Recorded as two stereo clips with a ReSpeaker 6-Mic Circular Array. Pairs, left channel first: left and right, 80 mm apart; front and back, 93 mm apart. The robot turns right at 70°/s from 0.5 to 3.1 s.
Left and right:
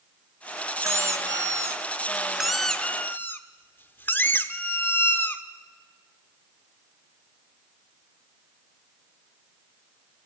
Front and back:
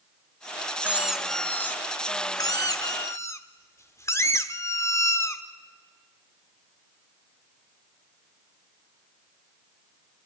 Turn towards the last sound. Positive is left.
turn(degrees=40)